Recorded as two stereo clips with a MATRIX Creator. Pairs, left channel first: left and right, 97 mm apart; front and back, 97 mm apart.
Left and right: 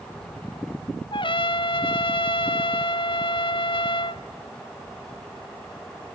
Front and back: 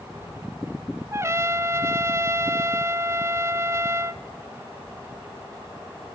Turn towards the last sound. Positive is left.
turn(degrees=115)